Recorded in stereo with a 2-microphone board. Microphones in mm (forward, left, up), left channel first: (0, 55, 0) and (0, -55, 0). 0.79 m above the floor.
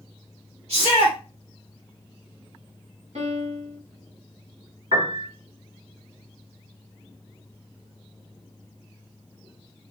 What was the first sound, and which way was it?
A shout, 65° right (ahead or behind).